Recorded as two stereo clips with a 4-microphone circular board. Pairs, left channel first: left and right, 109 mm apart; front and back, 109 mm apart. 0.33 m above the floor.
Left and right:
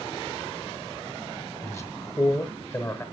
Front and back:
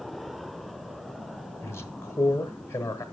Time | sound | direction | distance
1.6 | a man speaking | 45° left | 1.1 m